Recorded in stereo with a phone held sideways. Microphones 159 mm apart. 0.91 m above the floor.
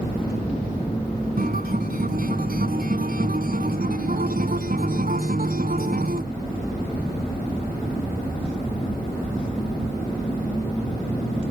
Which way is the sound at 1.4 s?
65° right (ahead or behind).